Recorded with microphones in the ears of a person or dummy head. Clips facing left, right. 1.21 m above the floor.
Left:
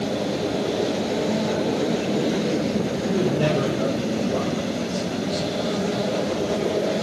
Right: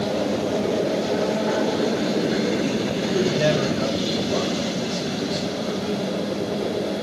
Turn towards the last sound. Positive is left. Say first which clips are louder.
# right 2 dB
turn(degrees=-20)  # may be behind; listen again after turning